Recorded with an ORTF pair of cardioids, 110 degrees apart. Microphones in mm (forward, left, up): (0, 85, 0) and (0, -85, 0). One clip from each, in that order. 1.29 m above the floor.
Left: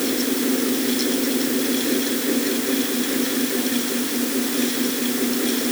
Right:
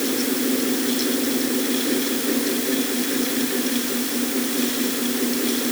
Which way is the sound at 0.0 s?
5° left.